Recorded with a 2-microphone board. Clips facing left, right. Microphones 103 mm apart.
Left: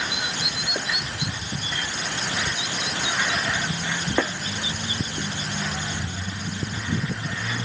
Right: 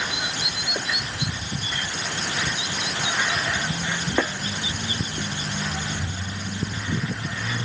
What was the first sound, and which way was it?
Only background noise.